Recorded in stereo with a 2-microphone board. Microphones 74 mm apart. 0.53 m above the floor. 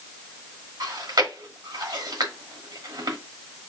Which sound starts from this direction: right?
Chewing, at 0.8 s.